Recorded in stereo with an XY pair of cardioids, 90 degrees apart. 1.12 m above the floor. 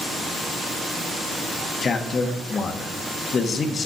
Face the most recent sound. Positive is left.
turn(degrees=50)